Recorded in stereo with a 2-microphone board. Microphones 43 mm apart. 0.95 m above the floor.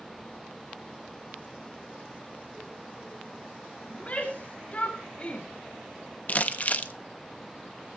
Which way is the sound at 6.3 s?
35° left (ahead or behind).